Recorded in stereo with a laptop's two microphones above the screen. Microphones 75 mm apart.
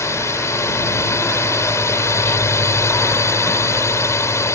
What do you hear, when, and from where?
0.0 s a drone: 40° left (ahead or behind)